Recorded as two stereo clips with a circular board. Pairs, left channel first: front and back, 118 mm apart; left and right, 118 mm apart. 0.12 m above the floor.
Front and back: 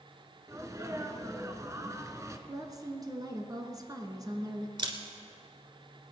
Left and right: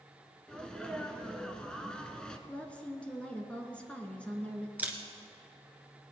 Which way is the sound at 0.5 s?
165° left.